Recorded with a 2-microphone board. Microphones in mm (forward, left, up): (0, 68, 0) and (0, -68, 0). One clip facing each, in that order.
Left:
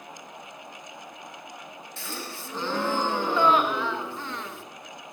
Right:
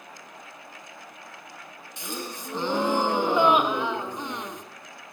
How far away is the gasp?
About 0.6 m.